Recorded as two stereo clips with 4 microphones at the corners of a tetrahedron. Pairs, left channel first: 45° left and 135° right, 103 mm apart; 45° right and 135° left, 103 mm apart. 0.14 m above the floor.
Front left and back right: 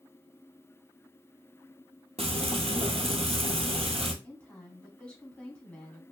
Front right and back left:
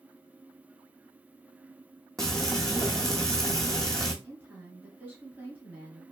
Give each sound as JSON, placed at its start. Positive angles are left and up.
{"t": 2.2, "sound": "frying", "azimuth_deg": -130, "distance_m": 0.8}
{"t": 4.2, "sound": "a woman speaking", "azimuth_deg": 105, "distance_m": 1.1}